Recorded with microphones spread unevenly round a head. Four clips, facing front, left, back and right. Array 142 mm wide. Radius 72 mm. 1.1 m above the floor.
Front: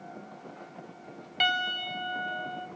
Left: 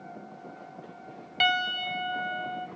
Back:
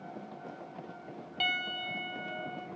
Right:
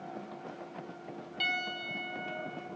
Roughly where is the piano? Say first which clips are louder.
Left 10 dB, front 7 dB; left.